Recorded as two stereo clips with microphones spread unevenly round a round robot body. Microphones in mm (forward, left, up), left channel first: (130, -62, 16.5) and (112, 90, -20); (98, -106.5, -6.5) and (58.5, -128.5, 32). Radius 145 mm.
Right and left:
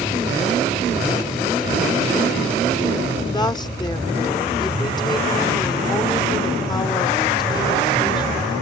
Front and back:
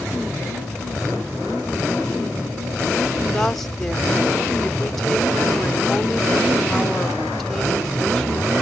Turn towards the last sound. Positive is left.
turn(degrees=-15)